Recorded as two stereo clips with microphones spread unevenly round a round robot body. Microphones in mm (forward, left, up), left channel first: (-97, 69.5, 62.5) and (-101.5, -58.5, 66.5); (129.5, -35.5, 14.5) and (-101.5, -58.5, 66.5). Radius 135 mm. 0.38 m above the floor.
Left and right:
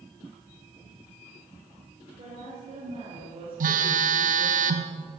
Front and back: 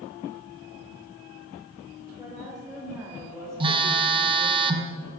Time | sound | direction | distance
2.2 | a woman speaking | 70° right | 2 m
3.6 | a phone buzzing | 105° right | 0.9 m